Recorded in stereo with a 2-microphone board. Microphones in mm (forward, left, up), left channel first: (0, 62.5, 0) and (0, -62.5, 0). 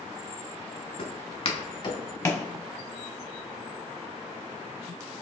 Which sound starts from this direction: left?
Footsteps, at 1.0 s.